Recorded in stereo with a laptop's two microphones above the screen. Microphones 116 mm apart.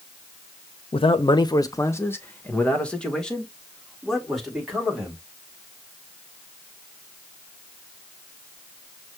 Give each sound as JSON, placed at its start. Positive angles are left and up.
{"t": 0.9, "sound": "a man speaking", "side_deg": 50, "distance_m": 0.6}